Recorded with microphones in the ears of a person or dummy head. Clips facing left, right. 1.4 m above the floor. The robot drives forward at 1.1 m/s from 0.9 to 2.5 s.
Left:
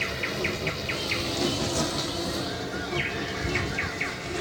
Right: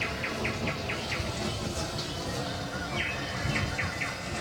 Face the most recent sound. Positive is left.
turn(degrees=40)  # may be behind; listen again after turning